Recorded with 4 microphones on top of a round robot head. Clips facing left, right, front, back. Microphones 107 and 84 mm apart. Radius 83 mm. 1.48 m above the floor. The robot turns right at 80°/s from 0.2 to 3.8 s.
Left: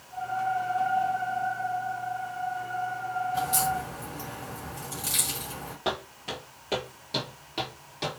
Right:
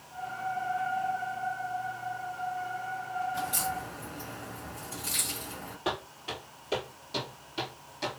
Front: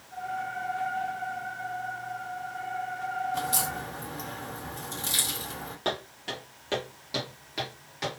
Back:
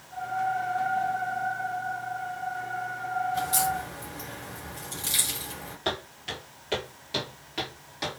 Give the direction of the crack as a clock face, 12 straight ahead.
12 o'clock.